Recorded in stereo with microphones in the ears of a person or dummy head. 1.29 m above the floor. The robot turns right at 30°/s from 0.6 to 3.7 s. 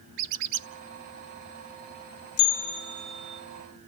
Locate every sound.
0.2 s a squeak: 60° right (ahead or behind), 0.9 m
2.4 s a bell: 130° left, 1.1 m; by 3.4 s 160° left, 1.1 m